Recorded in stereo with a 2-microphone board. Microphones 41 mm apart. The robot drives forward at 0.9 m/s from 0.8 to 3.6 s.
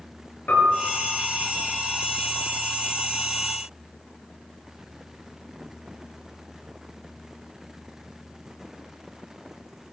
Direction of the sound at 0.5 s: 50° left (ahead or behind).